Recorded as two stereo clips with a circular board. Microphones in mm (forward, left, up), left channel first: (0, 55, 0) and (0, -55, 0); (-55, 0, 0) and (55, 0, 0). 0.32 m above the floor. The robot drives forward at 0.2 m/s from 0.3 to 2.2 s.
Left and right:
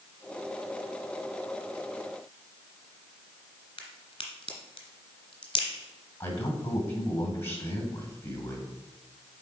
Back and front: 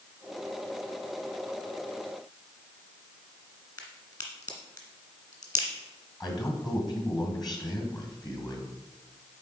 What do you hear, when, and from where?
3.8 s a crack: 130° left, 2 m
6.2 s a man speaking: 145° left, 2.5 m